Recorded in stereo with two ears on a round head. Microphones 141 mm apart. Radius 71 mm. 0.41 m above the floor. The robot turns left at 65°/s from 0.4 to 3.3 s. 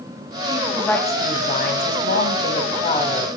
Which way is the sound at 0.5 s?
165° right.